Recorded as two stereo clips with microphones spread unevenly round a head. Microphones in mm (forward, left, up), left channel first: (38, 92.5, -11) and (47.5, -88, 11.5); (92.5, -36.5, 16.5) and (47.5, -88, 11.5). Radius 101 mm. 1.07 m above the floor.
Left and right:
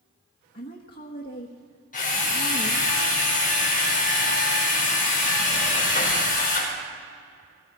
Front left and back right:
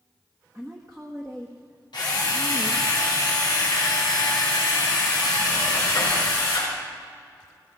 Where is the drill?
50° left, 5 m.